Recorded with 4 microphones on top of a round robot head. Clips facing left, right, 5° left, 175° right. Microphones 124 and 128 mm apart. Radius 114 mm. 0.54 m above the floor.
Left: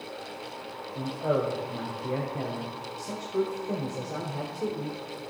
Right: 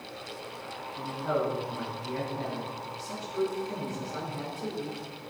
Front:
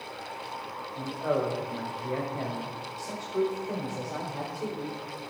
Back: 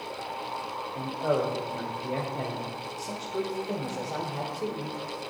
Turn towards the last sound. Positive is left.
turn(degrees=110)